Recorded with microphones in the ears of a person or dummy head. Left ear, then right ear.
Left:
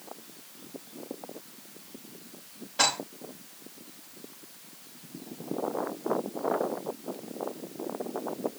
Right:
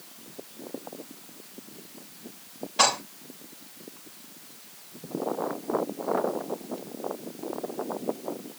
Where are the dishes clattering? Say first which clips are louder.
Right 3 dB; 15° right (ahead or behind), 6.5 m.